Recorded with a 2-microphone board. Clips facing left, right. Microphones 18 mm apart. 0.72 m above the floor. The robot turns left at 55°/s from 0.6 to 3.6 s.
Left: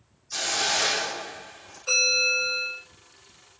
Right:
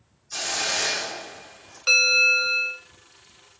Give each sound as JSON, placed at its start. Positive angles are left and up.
{"t": 0.3, "sound": "a hiss", "azimuth_deg": 175, "distance_m": 1.2}
{"t": 1.9, "sound": "a bell", "azimuth_deg": -80, "distance_m": 1.2}